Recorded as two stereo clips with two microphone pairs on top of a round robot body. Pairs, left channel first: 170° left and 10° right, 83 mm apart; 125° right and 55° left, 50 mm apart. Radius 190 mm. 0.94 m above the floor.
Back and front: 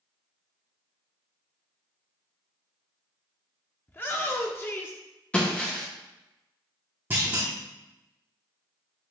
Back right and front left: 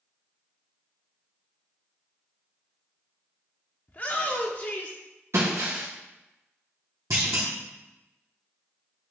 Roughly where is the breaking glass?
Left.